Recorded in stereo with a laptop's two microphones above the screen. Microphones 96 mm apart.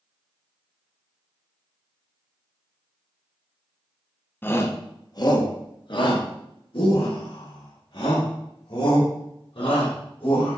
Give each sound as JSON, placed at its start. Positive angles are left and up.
{"t": 4.4, "sound": "a shout", "side_deg": 20, "distance_m": 0.8}